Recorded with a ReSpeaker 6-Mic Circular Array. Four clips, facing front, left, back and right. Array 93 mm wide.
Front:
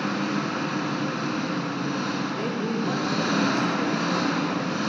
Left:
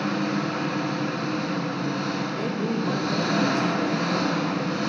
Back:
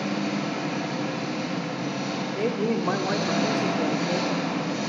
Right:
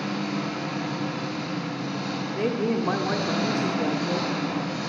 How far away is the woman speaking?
About 1.6 m.